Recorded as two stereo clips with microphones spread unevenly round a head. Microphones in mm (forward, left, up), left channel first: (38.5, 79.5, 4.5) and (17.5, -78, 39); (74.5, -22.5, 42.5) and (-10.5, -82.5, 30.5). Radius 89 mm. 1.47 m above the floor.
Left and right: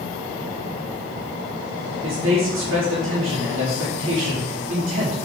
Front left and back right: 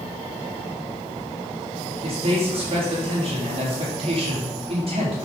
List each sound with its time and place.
2.0 s a man speaking: 125° right, 4 m